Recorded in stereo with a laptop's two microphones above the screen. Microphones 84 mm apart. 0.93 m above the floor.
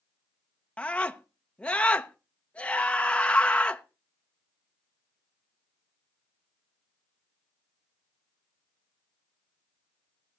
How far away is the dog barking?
I don't hear a dog barking.